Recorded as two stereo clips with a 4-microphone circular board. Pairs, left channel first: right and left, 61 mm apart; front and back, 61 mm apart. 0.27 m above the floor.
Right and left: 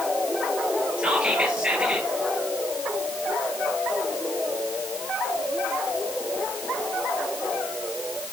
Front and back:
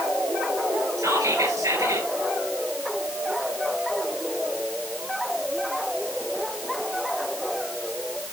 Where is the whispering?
165° left, 5 m.